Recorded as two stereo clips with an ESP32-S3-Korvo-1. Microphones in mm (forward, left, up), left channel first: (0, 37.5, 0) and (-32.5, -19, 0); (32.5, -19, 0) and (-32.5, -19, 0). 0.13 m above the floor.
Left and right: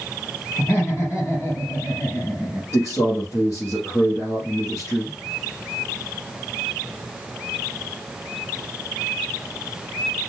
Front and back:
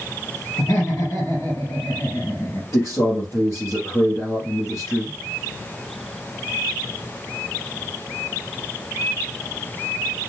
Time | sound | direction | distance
0.6 | laughter | 25° left | 3.5 m
2.7 | a man speaking | 20° left | 3 m